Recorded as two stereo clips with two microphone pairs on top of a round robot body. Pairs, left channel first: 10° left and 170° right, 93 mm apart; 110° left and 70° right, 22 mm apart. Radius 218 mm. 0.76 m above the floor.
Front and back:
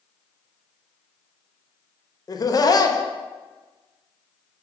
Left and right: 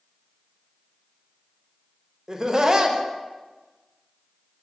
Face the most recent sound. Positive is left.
turn(degrees=-25)